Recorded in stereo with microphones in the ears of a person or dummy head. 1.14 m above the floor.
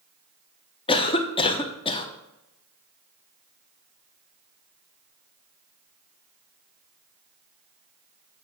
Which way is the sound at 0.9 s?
25° left (ahead or behind).